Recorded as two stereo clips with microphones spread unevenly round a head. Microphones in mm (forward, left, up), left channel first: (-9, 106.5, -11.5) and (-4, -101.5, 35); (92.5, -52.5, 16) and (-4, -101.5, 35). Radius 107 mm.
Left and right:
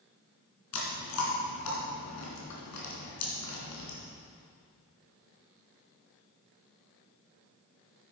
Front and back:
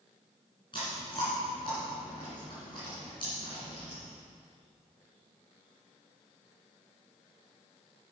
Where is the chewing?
100° left, 2.5 m.